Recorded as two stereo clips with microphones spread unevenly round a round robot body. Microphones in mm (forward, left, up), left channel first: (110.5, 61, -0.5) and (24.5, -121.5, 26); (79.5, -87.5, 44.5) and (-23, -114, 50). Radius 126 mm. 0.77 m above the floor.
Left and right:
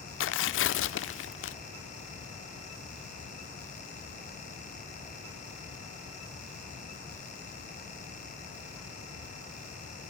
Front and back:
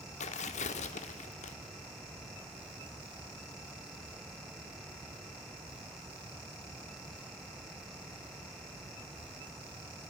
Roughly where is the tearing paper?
Ahead left.